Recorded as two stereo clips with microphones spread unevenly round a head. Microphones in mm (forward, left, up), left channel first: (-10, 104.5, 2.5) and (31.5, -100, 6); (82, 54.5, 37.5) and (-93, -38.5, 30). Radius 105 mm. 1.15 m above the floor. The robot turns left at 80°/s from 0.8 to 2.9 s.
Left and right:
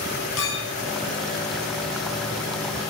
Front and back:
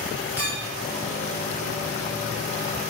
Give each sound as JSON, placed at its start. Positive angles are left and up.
{"t": 0.4, "sound": "a clink", "azimuth_deg": 125, "distance_m": 1.0}